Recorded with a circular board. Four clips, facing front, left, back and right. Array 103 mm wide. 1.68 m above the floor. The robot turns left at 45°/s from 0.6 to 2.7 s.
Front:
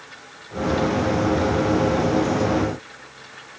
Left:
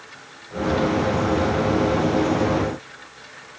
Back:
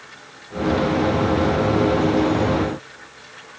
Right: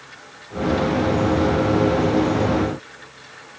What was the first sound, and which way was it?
Only background noise.